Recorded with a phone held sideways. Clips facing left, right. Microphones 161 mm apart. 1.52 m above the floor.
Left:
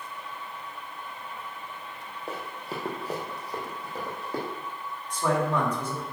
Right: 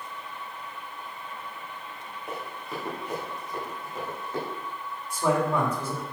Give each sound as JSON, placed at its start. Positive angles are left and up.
{"t": 2.3, "sound": "running footsteps", "side_deg": 30, "distance_m": 3.0}
{"t": 5.1, "sound": "a man speaking", "side_deg": -10, "distance_m": 3.5}